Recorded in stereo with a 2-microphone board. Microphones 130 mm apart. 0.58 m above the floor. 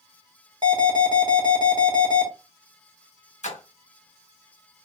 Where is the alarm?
35° right (ahead or behind), 1.1 m.